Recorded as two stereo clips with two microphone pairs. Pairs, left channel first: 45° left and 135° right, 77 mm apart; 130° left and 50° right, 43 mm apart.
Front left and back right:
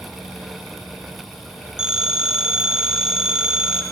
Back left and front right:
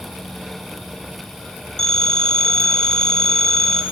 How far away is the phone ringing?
About 0.8 m.